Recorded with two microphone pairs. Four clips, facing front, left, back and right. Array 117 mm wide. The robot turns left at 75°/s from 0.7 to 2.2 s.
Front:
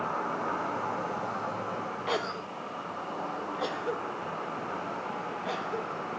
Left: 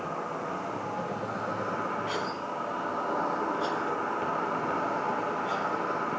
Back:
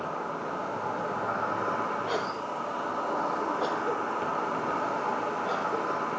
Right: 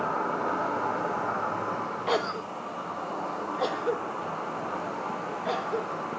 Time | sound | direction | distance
0.0 | an insect | 90° right | 5 m
2.1 | a cough | 90° right | 0.8 m